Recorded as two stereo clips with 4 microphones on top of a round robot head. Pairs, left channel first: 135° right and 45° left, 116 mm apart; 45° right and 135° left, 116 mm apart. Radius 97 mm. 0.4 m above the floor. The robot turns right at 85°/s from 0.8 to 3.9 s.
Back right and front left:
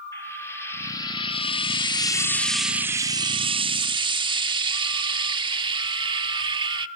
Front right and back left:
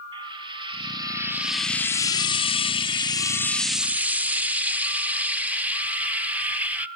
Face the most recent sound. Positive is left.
turn(degrees=65)